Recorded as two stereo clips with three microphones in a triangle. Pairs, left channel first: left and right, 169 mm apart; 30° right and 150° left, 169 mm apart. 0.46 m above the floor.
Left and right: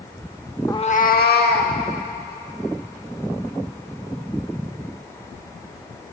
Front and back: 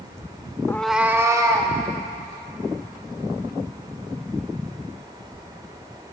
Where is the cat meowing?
25° left, 0.5 m; by 1.7 s 85° left, 1.8 m.